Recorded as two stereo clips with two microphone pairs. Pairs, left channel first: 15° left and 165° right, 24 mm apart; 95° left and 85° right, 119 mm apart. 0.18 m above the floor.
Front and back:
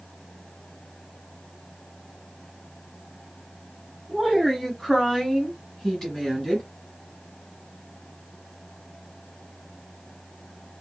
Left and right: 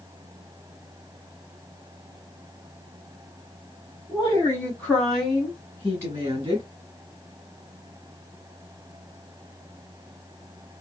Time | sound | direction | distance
4.1 | a woman speaking | 100° left | 1.4 m